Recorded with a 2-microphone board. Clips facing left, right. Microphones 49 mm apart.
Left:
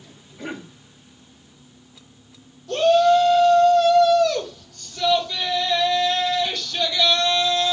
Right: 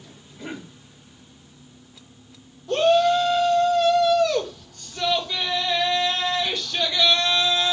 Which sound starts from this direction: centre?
A shout, at 2.7 s.